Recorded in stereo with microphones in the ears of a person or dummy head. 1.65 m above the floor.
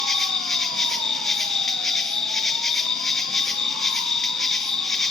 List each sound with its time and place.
0.0 s an insect: 10° left (ahead or behind), 1.0 m